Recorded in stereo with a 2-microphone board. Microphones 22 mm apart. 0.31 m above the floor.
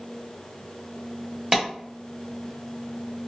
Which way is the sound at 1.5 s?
15° right (ahead or behind).